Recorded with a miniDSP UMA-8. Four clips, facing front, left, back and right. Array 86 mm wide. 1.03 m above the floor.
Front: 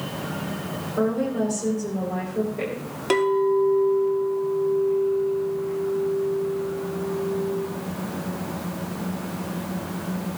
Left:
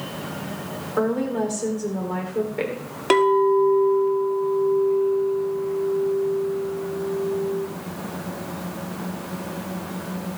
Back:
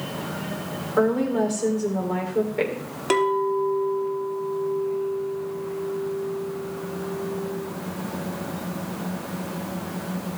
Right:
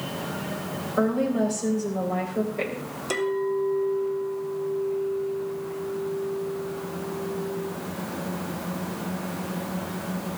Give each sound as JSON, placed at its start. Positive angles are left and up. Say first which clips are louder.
{"t": 1.0, "sound": "a woman speaking", "louder": "left 1 dB, back 3 dB", "azimuth_deg": 145, "distance_m": 3.5}
{"t": 3.1, "sound": "a clink", "louder": "left 9 dB, front 2 dB", "azimuth_deg": 95, "distance_m": 1.4}